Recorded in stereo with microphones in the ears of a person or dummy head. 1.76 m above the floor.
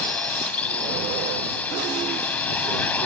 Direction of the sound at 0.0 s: 10° left (ahead or behind).